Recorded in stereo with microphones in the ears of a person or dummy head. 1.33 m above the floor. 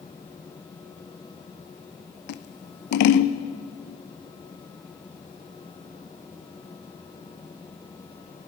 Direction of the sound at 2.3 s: 60° left (ahead or behind).